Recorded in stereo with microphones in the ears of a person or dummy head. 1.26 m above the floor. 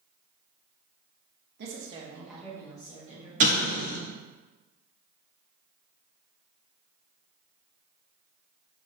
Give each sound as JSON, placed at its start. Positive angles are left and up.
{"t": 1.6, "sound": "a woman speaking", "side_deg": -50, "distance_m": 0.6}
{"t": 3.4, "sound": "an explosion", "side_deg": -40, "distance_m": 0.5}